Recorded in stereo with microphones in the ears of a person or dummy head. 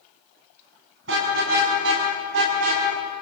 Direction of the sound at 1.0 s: 70° right (ahead or behind).